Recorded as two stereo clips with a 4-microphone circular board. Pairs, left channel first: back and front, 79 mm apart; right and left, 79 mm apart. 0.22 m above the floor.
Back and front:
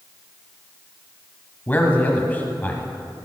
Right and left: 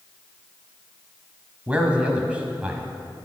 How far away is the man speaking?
About 1.2 m.